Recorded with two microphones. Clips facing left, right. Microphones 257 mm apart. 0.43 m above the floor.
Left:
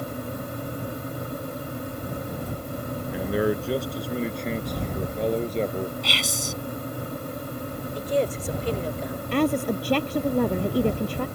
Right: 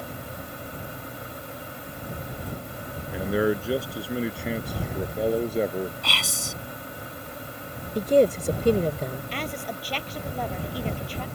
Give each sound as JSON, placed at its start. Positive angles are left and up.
{"t": 3.1, "sound": "a man speaking", "side_deg": 0}
{"t": 6.0, "sound": "whispering", "side_deg": -70}
{"t": 8.0, "sound": "a woman speaking", "side_deg": -50}
{"t": 9.3, "sound": "a woman speaking", "side_deg": 65}